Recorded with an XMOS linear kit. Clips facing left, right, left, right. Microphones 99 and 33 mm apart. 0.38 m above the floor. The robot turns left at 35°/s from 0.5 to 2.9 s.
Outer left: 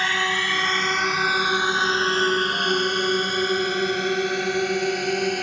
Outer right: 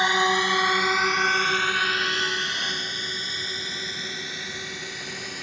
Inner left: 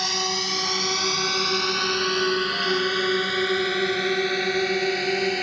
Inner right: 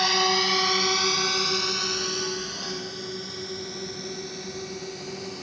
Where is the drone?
20° right (ahead or behind); by 5.4 s 60° left (ahead or behind).